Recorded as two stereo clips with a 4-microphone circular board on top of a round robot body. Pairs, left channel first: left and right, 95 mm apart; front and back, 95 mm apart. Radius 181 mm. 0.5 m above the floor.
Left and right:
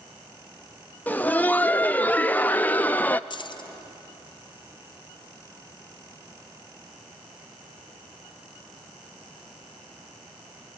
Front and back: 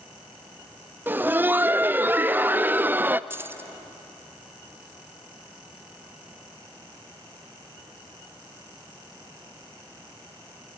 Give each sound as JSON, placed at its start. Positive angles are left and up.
{"t": 1.1, "sound": "laughter", "azimuth_deg": 140, "distance_m": 0.6}
{"t": 3.3, "sound": "keys jangling", "azimuth_deg": 115, "distance_m": 1.0}